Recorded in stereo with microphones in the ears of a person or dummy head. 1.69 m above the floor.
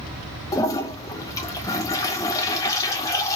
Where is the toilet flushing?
20° left (ahead or behind), 0.6 m.